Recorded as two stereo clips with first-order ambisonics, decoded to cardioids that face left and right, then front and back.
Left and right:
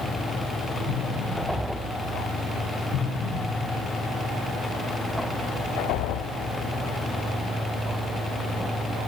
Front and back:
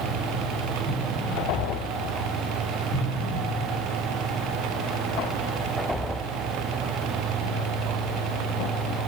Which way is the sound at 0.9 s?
70° left.